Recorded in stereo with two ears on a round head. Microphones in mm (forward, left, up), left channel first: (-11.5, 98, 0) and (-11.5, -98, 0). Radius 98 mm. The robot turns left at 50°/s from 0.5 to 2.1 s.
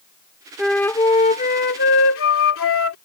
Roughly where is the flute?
Behind.